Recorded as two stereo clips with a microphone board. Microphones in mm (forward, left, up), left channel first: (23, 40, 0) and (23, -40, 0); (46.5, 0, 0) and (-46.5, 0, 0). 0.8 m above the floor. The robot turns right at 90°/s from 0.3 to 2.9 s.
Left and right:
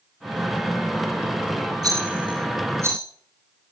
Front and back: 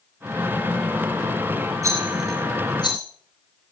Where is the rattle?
130° right, 6 m; by 3.0 s 30° right, 6 m.